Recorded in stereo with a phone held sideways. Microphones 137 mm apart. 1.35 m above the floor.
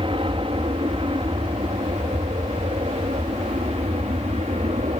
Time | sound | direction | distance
0.0 | an aircraft | 40° right (ahead or behind) | ?